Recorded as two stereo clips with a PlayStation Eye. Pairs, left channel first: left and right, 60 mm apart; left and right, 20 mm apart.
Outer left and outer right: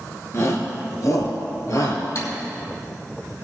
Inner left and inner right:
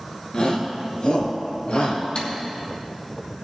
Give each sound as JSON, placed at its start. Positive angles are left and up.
{"t": 0.3, "sound": "a shout", "side_deg": 50, "distance_m": 2.0}
{"t": 2.1, "sound": "typing on a keyboard", "side_deg": 60, "distance_m": 3.0}